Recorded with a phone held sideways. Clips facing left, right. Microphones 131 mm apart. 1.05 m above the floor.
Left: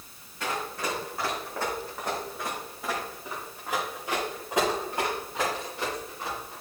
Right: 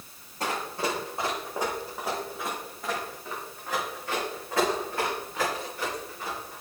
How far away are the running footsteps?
About 4 m.